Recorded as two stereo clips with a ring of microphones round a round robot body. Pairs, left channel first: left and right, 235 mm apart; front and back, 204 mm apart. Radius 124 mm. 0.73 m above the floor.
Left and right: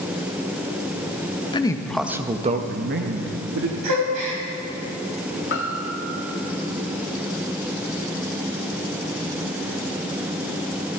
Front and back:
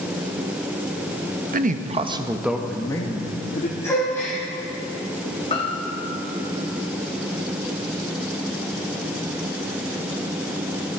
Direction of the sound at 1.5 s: 155° left.